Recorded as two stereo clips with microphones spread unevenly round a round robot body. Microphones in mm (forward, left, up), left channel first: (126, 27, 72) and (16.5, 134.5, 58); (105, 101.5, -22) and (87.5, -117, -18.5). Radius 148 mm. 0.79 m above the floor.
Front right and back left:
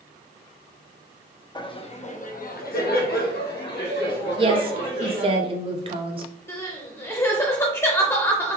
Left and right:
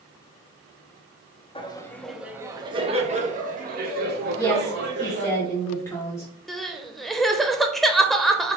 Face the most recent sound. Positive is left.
turn(degrees=-5)